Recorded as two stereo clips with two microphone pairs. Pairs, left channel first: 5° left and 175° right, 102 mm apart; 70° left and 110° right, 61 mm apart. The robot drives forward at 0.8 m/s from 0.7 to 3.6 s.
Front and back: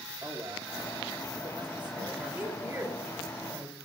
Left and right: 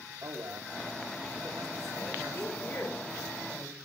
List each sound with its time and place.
0.2 s a man speaking: 115° right, 1.8 m; by 2.5 s 145° right, 3 m
2.3 s a woman speaking: 115° left, 3.5 m; by 3.8 s 130° left, 4 m